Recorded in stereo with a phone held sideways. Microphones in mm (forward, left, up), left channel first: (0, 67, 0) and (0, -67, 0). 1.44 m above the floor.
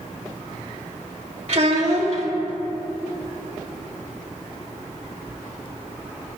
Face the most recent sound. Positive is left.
turn(degrees=-55)  # may be behind; listen again after turning